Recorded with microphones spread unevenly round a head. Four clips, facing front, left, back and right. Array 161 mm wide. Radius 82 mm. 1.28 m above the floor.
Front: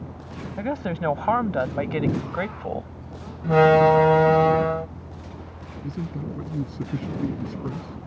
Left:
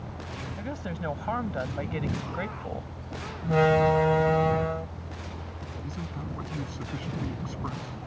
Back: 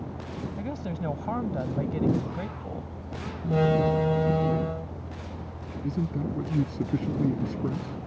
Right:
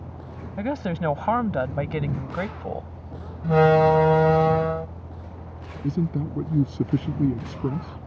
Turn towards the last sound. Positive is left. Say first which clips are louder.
# right 13 dB, back 2 dB
turn(degrees=-105)